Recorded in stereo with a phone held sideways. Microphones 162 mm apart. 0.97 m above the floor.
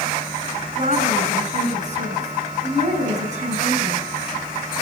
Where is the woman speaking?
50° right (ahead or behind), 6.5 m.